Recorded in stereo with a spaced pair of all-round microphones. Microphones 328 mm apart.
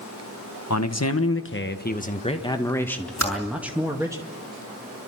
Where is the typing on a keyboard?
60° left (ahead or behind), 6.5 m.